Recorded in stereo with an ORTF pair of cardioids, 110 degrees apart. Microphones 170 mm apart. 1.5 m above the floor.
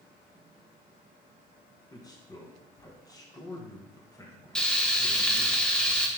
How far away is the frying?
About 1.2 m.